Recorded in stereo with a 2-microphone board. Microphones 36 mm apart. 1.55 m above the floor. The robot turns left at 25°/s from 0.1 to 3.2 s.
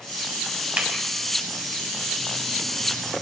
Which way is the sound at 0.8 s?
40° right (ahead or behind).